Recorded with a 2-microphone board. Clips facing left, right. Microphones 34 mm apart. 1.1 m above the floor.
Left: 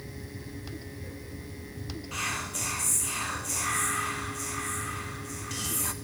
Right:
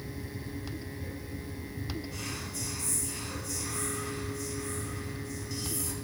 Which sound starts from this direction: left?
Whispering, at 2.1 s.